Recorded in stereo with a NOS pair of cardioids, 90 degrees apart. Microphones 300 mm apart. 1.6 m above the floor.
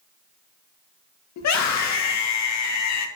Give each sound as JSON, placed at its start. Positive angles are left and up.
{"t": 1.4, "sound": "a scream", "azimuth_deg": 65, "distance_m": 1.9}